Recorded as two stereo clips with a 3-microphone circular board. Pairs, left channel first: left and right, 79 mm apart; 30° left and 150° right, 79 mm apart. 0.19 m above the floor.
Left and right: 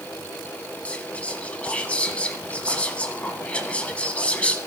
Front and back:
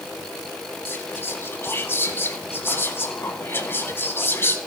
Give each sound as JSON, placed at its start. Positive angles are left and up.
{"t": 0.8, "sound": "whispering", "azimuth_deg": 35, "distance_m": 1.3}